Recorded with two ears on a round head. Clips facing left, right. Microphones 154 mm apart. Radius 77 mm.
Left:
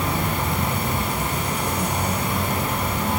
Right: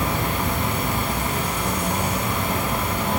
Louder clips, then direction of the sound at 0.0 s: Even; 55° right (ahead or behind).